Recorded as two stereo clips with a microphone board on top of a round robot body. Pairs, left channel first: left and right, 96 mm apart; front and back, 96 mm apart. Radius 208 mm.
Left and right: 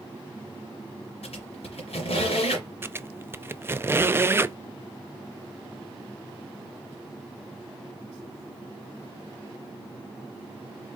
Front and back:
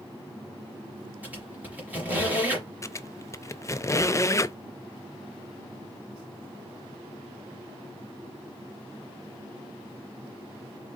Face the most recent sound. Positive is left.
turn(degrees=-35)